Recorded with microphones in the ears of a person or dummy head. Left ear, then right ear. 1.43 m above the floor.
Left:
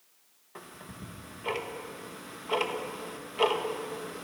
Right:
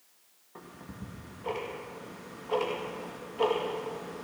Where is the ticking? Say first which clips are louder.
Left 1 dB; 60° left (ahead or behind), 2 m.